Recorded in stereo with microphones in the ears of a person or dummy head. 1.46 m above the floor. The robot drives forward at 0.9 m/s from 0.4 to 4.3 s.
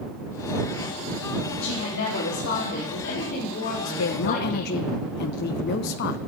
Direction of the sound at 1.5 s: 75° left (ahead or behind).